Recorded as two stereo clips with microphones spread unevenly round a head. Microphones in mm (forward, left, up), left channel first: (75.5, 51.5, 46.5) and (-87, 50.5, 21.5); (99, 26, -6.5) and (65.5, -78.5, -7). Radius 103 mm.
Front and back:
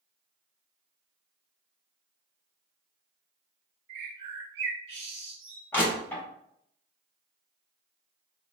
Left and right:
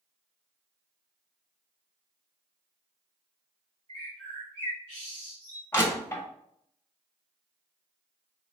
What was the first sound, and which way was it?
A bird, 160° right.